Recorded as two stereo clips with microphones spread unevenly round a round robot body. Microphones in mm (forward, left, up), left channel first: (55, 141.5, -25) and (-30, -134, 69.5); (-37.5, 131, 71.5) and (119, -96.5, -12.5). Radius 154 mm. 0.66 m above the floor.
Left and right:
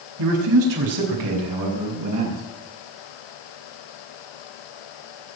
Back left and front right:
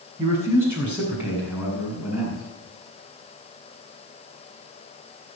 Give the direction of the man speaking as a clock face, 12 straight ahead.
4 o'clock.